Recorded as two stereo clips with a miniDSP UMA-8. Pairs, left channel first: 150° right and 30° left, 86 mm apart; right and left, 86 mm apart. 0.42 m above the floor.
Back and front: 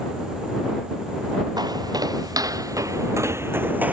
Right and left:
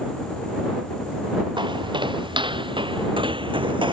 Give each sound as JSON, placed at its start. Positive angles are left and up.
{"t": 1.6, "sound": "footsteps", "azimuth_deg": 70}